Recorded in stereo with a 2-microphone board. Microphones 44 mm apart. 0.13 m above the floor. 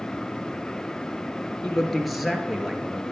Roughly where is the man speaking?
Centre.